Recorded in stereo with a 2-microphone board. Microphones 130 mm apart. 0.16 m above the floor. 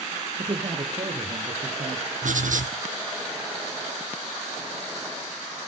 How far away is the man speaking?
About 3.5 m.